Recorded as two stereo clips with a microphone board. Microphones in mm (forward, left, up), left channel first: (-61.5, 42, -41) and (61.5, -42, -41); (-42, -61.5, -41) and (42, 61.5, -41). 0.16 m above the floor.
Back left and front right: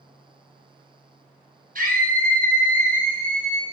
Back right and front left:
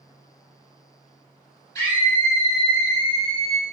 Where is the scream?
60° right, 5 m; by 3.6 s 55° right, 3.5 m.